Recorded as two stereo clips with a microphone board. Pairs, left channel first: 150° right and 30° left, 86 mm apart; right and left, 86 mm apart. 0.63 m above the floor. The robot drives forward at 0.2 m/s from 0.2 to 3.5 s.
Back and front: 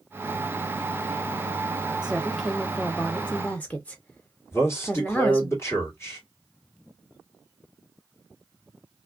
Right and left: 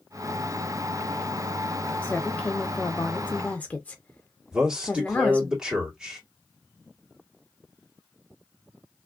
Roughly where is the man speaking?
Behind.